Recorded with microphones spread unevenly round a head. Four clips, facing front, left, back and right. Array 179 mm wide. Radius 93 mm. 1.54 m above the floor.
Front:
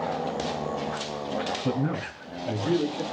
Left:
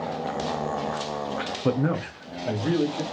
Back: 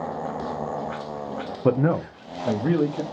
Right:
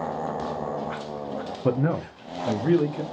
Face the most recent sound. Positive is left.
turn(degrees=-170)